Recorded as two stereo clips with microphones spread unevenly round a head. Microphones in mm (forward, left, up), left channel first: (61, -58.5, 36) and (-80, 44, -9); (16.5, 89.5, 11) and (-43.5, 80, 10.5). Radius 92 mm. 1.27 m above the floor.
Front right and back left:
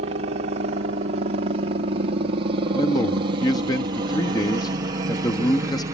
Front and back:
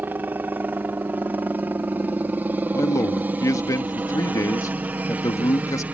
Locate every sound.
0.0 s a helicopter: 145° left; by 5.9 s 155° left
2.7 s a man speaking: 35° left